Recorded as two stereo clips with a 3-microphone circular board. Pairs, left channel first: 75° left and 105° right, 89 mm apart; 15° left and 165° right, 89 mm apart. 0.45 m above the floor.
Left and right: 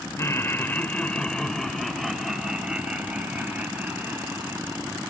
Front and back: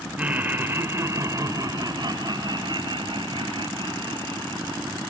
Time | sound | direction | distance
0.2 | laughter | 125° left | 1.8 m